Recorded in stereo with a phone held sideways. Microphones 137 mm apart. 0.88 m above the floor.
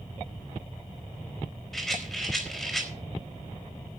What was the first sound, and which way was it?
A rattle, 5° left (ahead or behind).